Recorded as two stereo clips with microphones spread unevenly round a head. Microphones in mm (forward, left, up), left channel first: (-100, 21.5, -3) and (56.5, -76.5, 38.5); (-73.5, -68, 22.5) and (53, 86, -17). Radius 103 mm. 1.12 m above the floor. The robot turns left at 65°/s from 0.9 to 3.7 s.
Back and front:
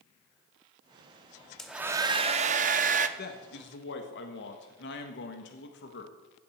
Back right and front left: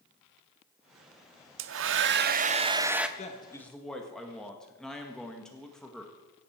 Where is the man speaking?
175° left, 1.5 m; by 6.1 s 140° left, 1.5 m.